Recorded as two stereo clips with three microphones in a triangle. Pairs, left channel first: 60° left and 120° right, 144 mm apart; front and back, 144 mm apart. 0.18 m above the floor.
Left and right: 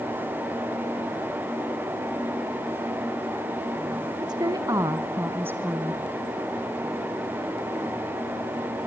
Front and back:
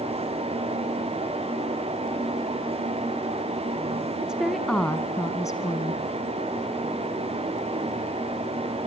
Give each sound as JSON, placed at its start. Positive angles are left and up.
{"t": 4.2, "sound": "a woman speaking", "azimuth_deg": -105, "distance_m": 1.4}